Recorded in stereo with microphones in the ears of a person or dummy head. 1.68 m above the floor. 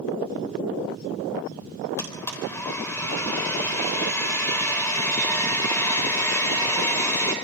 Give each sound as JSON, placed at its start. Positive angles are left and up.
{"t": 2.0, "sound": "a blender", "side_deg": 20, "distance_m": 3.5}